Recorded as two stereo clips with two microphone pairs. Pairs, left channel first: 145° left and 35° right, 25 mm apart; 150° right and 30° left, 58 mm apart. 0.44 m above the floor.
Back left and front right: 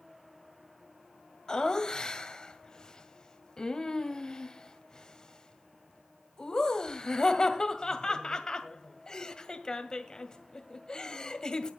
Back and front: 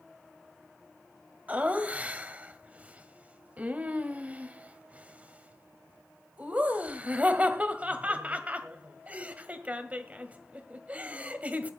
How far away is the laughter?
About 1.8 m.